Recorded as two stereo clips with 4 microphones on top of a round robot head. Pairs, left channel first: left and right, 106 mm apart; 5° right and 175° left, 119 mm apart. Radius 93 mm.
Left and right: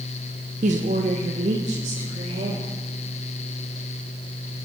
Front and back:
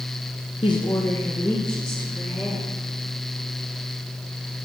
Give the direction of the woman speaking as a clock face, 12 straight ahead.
2 o'clock.